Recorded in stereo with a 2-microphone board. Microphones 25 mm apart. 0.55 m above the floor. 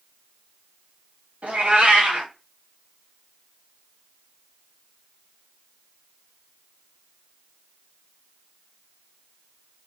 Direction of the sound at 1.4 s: 85° right.